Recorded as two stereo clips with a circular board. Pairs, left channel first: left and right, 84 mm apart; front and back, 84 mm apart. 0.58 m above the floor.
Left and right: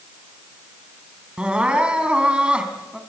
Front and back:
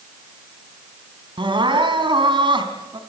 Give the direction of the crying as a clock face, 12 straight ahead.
6 o'clock.